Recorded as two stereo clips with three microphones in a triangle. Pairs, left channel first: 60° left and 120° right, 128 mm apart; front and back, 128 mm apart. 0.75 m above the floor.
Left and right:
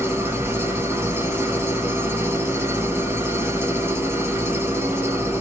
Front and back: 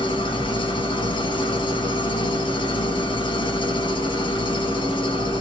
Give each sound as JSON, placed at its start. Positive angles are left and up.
{"t": 0.0, "sound": "an engine running", "azimuth_deg": -50, "distance_m": 1.4}